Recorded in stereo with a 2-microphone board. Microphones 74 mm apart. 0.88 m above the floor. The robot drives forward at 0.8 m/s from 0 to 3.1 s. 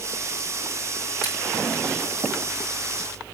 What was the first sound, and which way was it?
Scissors, 75° left (ahead or behind).